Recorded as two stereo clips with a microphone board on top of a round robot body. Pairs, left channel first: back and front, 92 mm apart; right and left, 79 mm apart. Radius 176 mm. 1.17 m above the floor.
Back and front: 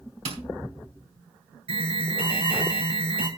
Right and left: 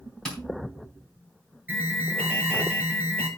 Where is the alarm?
15° left, 6 m.